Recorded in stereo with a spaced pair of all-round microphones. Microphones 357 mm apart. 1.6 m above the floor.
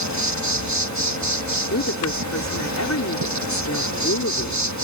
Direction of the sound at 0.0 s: 50° right (ahead or behind).